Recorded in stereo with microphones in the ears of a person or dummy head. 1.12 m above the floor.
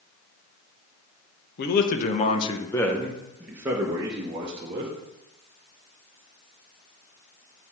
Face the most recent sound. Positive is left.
turn(degrees=-35)  # may be behind; listen again after turning